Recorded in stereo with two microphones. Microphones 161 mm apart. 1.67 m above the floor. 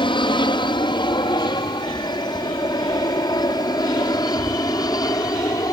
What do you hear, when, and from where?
0.0 s an aircraft: 30° left (ahead or behind); by 5.7 s 20° left (ahead or behind)